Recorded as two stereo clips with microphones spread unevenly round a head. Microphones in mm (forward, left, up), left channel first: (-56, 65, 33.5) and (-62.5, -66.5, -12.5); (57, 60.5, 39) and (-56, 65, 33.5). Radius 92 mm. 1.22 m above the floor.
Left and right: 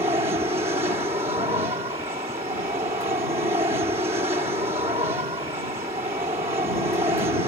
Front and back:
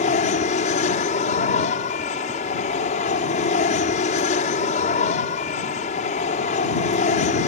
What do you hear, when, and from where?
0.0 s an aircraft: 25° right